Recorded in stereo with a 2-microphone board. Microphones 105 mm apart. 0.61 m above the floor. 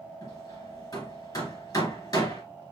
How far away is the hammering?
About 2 m.